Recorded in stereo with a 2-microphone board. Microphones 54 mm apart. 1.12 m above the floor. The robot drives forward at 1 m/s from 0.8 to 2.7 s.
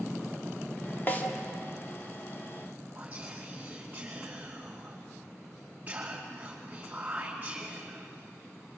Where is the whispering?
30° right (ahead or behind), 3 m.